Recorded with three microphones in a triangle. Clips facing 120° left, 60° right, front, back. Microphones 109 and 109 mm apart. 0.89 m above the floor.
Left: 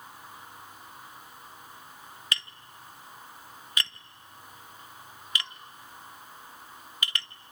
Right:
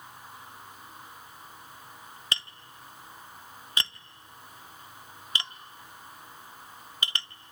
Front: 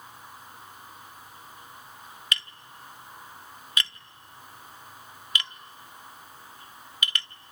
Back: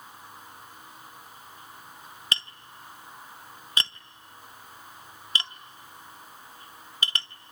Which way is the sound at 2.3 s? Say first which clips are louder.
Even, even; 120° right.